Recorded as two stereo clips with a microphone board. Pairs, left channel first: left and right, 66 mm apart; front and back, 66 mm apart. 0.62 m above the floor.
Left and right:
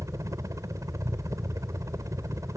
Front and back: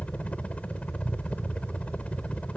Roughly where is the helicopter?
Right.